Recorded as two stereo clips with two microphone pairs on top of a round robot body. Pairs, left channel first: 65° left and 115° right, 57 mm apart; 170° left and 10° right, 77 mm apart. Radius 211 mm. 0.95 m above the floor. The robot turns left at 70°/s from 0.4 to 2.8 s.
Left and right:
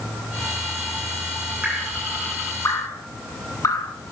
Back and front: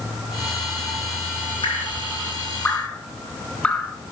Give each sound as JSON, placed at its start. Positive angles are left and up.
{"t": 1.6, "sound": "dripping", "azimuth_deg": 175, "distance_m": 8.0}